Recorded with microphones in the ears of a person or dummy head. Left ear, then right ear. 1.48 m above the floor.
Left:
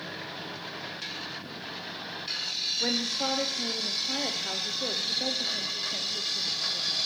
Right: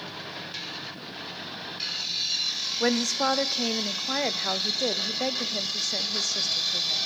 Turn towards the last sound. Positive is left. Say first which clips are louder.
# right 6 dB
turn(degrees=-70)  # may be behind; listen again after turning